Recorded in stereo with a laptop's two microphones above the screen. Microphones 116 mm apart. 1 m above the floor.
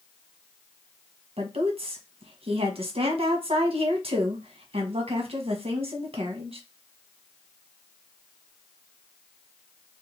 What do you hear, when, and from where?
1.4 s a woman speaking: 55° right (ahead or behind), 0.9 m